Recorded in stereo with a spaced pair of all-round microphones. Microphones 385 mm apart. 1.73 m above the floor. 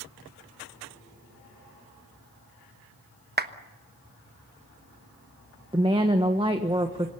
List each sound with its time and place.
3.4 s a clap: 25° right (ahead or behind), 1.1 m
5.7 s a woman speaking: 15° right (ahead or behind), 1.3 m